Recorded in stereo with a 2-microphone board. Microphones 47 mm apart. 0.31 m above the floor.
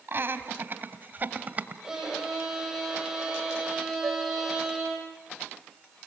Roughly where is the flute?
Right.